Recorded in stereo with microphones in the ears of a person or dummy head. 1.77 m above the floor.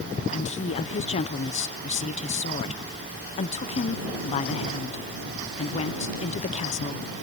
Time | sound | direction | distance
0.3 | a woman speaking | 30° left (ahead or behind) | ?